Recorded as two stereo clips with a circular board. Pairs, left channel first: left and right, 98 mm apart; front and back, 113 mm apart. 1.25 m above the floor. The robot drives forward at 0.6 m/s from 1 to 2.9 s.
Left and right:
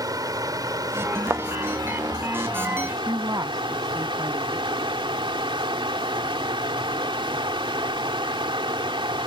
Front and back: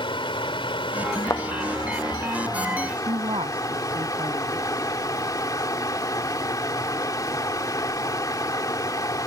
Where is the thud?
40° right; by 1.4 s 50° right.